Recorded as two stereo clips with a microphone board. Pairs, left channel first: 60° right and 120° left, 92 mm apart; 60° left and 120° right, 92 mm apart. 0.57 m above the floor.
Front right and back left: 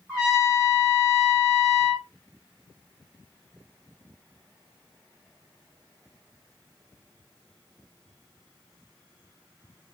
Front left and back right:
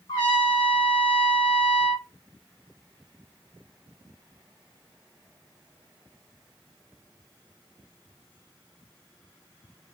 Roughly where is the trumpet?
Ahead left.